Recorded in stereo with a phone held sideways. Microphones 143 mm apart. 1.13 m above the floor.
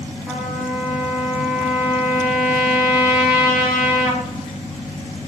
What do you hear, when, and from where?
0.3 s a trumpet: 10° right (ahead or behind), 1.3 m